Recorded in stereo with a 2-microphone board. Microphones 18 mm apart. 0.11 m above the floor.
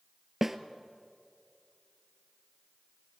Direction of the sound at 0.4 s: 10° right (ahead or behind).